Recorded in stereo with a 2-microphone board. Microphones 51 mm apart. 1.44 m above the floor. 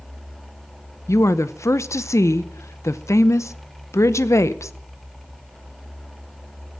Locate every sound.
1.1 s a woman speaking: 70° left (ahead or behind), 0.7 m